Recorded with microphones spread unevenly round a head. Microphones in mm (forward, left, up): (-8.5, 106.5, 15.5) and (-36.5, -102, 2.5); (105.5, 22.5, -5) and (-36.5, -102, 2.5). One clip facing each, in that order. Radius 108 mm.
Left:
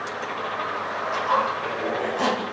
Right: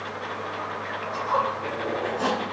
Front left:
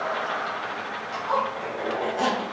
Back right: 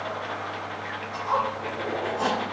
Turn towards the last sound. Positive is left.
turn(degrees=75)